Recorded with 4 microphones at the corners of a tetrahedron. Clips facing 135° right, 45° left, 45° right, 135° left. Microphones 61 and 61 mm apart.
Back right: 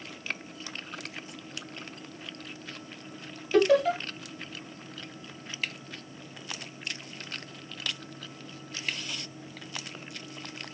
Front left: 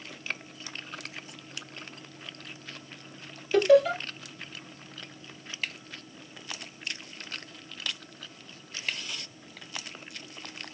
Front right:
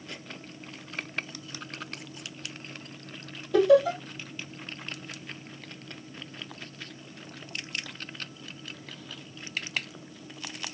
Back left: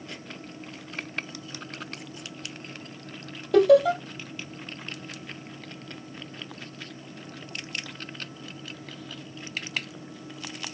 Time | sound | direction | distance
3.5 | laughter | 135° left | 2.5 m